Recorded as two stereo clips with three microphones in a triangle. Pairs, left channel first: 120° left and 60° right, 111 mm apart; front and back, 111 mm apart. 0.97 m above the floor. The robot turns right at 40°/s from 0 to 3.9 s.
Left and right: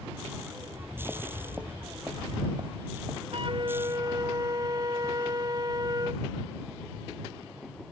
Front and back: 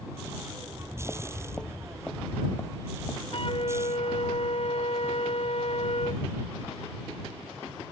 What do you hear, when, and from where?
0.6 s footsteps: 25° left; by 3.2 s 30° right
3.3 s a flute: 30° right; by 6.2 s 10° right